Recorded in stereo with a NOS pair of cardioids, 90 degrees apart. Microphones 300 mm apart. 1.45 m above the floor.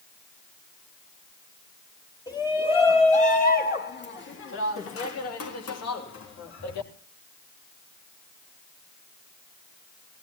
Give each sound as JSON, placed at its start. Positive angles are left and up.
{"t": 2.3, "sound": "a shout", "azimuth_deg": 10, "distance_m": 3.0}